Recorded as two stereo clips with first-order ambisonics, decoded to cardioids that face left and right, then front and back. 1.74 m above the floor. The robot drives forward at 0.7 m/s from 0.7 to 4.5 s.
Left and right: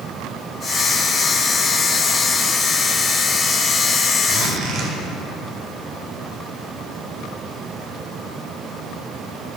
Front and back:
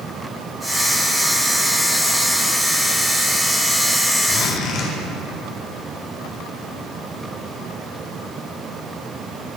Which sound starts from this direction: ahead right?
A zipper, at 4.3 s.